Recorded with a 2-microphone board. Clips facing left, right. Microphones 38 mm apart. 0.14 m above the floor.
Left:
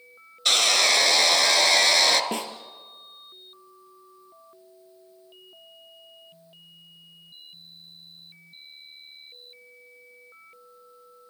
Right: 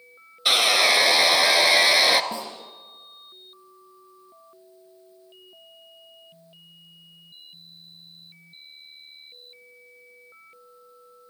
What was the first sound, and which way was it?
Sawing, 15° right (ahead or behind).